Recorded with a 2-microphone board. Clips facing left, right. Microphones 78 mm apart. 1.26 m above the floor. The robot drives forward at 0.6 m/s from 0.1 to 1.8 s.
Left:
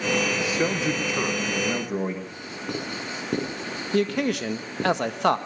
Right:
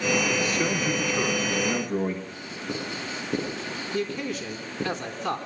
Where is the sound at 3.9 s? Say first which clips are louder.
Left 7 dB; 75° left (ahead or behind), 1.4 m.